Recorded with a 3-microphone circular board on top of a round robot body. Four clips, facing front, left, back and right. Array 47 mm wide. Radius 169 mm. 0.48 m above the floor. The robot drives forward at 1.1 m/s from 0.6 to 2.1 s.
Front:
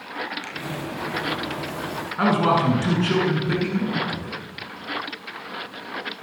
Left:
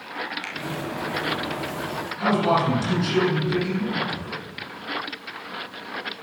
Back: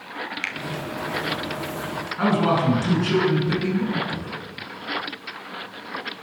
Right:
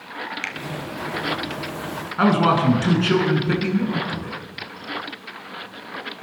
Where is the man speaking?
70° right, 9 m.